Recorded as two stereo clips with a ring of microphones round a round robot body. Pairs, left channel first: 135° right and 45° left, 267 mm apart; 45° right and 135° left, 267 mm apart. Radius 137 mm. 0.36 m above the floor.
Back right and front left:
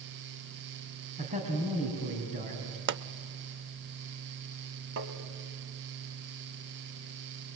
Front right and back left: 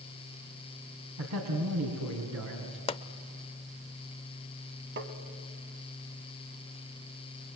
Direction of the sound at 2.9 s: 15° left.